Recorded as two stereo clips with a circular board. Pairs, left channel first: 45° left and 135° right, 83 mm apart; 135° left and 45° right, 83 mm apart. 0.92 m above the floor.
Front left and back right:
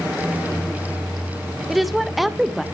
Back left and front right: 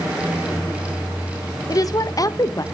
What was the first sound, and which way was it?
A woman speaking, 135° left.